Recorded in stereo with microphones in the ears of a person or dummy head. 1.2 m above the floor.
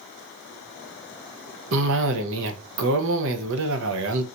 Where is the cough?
70° right (ahead or behind), 0.6 m.